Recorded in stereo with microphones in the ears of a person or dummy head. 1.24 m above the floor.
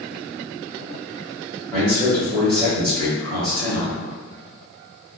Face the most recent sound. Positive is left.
turn(degrees=10)  # may be behind; listen again after turning